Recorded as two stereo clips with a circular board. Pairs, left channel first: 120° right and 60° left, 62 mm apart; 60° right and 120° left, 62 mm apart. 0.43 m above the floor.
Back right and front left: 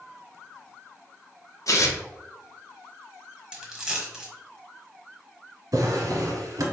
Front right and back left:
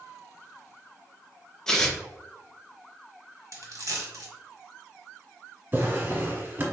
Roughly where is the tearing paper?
Behind right.